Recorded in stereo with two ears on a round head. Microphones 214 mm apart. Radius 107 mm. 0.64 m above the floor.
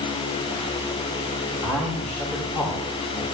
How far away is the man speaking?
About 4.5 m.